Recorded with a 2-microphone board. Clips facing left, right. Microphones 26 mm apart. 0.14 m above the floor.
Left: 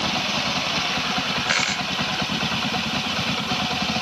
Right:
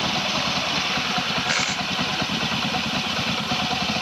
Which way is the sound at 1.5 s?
10° left (ahead or behind).